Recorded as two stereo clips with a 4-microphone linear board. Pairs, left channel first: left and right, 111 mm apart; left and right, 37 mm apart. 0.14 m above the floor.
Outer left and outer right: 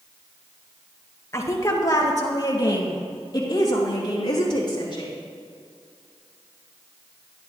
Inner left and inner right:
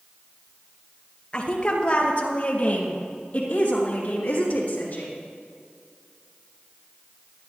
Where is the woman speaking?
25° left (ahead or behind), 2 m; by 5.1 s 40° left (ahead or behind), 6 m.